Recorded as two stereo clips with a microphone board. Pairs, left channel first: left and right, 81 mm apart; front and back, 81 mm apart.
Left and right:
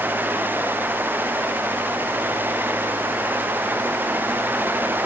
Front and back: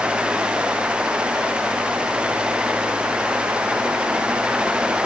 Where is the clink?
No clink in this recording.